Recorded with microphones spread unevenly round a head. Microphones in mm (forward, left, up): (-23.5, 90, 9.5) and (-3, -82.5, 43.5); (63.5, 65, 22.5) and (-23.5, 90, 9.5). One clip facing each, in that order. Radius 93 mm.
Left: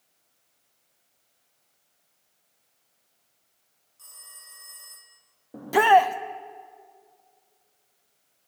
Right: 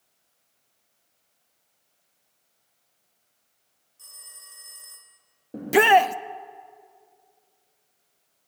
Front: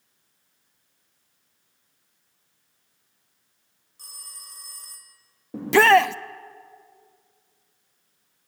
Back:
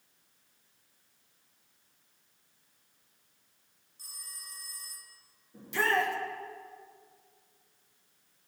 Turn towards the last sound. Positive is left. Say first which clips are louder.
# right 1 dB, front 14 dB
turn(degrees=-15)